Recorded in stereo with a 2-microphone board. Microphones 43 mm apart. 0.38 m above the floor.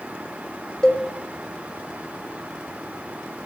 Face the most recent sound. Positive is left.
turn(degrees=20)  # may be behind; listen again after turning